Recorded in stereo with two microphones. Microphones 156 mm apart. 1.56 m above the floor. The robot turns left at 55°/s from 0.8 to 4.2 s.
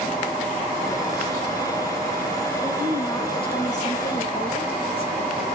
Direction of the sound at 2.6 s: 170° right.